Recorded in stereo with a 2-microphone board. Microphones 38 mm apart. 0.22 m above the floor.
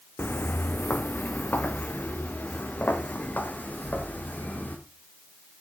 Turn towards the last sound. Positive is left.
turn(degrees=45)  # may be behind; listen again after turning